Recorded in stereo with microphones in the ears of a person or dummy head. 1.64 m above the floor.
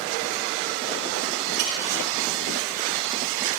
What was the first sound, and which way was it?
A clink, 75° right (ahead or behind).